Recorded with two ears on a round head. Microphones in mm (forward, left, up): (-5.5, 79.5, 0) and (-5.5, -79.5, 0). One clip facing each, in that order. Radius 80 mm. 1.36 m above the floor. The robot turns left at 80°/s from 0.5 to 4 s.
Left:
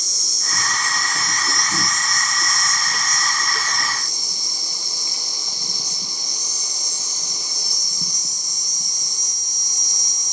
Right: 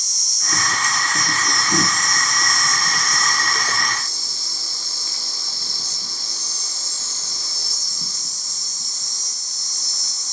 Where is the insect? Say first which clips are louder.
Left 1 dB; 85° left, 0.7 m; by 10.3 s 165° left, 0.7 m.